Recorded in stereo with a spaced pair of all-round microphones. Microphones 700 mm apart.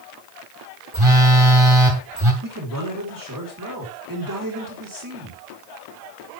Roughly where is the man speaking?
Right.